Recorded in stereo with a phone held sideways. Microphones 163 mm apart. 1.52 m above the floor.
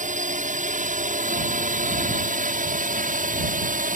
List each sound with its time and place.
0.0 s a drone: 50° right (ahead or behind); by 4.0 s 55° right (ahead or behind)